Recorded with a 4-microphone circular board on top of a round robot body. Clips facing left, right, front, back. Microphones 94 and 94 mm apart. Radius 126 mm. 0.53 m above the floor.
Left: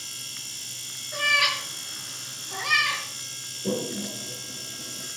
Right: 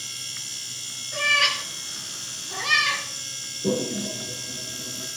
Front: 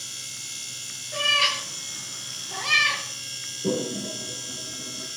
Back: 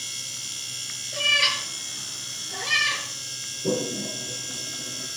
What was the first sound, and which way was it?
A cat meowing, 15° left.